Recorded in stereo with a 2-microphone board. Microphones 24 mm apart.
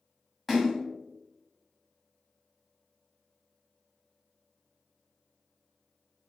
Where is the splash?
10° left (ahead or behind), 1.5 m.